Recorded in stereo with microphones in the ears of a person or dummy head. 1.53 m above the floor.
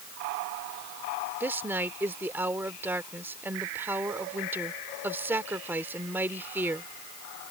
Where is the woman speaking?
15° right (ahead or behind).